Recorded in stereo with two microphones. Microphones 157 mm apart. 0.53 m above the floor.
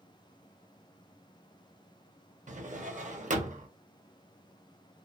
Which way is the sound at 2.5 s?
55° right (ahead or behind).